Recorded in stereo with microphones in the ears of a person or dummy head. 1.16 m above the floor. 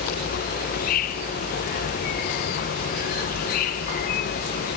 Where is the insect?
45° left (ahead or behind).